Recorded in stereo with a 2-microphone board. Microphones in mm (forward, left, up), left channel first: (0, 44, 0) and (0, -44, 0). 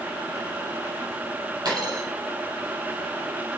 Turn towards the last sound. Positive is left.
turn(degrees=-50)  # may be behind; listen again after turning